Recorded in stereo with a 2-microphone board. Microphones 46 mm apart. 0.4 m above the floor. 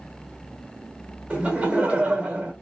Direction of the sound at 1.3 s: 30° right (ahead or behind).